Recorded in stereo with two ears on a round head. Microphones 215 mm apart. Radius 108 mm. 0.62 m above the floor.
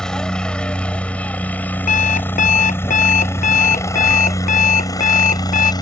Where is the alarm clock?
30° left (ahead or behind).